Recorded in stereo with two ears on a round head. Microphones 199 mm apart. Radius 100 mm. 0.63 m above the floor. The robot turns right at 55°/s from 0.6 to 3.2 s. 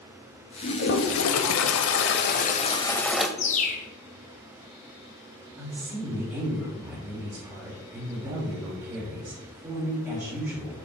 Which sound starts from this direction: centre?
A woman speaking, at 5.6 s.